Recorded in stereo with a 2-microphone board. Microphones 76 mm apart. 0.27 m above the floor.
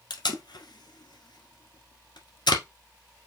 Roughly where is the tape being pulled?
Left.